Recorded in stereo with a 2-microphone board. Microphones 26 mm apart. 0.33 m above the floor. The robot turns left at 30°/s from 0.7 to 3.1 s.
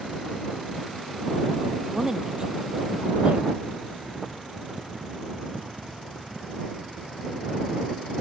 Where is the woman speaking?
15° right (ahead or behind); by 3.6 s 50° right (ahead or behind).